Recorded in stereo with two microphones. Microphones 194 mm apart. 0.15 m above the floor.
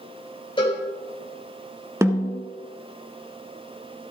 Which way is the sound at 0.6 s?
25° left (ahead or behind).